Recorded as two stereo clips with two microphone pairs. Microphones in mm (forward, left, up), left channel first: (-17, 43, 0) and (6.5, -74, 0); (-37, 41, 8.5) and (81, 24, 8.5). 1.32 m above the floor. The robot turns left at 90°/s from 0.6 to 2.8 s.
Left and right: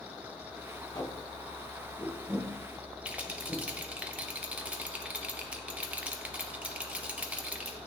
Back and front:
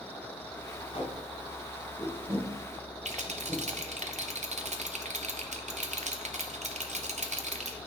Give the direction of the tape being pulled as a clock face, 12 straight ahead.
7 o'clock.